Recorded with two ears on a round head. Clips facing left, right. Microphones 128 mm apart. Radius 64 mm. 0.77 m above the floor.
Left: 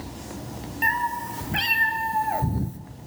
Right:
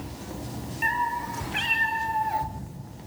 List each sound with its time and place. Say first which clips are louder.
0.8 s a cat meowing: left 1 dB; 50° left (ahead or behind), 2.5 m